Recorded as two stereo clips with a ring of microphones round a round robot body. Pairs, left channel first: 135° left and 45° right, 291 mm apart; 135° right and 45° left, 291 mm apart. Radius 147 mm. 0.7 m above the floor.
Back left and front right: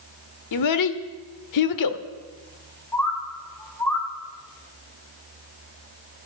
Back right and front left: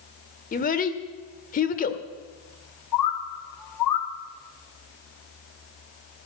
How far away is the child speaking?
About 1.2 m.